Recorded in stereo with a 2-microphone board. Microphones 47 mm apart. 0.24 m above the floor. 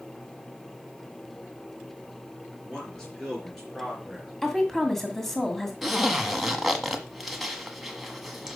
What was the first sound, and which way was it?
A man speaking, 15° left (ahead or behind).